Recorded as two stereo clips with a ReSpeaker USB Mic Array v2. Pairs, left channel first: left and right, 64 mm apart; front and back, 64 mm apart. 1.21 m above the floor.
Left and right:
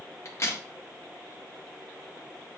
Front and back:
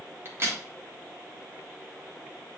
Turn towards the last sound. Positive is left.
turn(degrees=135)